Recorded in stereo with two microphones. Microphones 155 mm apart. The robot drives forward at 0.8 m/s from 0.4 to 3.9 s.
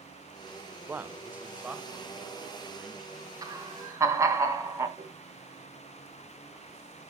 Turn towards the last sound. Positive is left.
turn(degrees=-35)  # may be behind; listen again after turning